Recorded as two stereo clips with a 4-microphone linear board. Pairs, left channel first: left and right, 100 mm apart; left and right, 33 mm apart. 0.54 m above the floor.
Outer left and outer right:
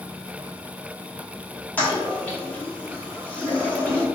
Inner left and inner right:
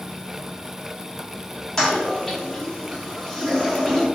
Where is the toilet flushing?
15° left (ahead or behind), 0.9 m.